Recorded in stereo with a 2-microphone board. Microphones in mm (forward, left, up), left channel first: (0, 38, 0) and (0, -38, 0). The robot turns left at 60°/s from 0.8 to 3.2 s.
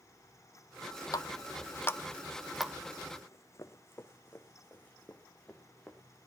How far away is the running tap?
About 0.6 m.